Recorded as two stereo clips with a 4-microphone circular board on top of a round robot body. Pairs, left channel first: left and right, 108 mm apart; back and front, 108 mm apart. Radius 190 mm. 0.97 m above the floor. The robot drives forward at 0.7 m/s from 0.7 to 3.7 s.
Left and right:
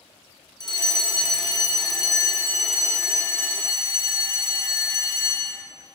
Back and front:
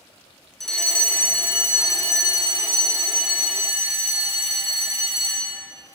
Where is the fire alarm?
95° left, 1.9 m; by 5.7 s 155° left, 3 m.